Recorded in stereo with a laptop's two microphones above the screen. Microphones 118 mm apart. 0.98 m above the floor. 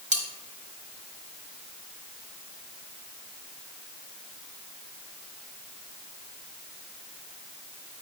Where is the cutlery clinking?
80° right, 1.3 m.